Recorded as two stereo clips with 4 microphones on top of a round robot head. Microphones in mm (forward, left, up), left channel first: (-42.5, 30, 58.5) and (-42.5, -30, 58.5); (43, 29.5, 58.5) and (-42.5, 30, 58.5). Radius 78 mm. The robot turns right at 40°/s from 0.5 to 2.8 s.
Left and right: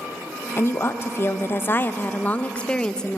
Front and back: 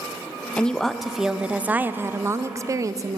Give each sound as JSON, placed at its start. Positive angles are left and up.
{"t": 0.6, "sound": "a woman speaking", "azimuth_deg": 70, "distance_m": 0.5}